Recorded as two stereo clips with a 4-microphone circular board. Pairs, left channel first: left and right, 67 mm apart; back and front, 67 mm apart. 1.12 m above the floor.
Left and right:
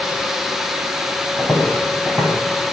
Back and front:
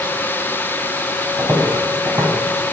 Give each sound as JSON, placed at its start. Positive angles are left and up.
{"t": 1.4, "sound": "footsteps", "azimuth_deg": 0, "distance_m": 1.6}